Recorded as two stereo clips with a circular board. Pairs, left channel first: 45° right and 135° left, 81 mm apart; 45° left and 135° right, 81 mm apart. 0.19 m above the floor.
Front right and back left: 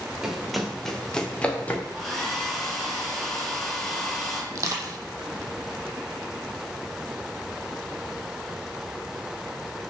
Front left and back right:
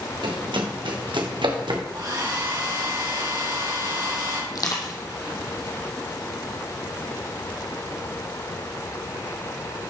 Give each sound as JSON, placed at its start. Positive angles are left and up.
{"t": 0.2, "sound": "running footsteps", "azimuth_deg": -140, "distance_m": 2.5}
{"t": 1.9, "sound": "a hair dryer", "azimuth_deg": -135, "distance_m": 4.5}
{"t": 4.5, "sound": "crushing", "azimuth_deg": 85, "distance_m": 1.8}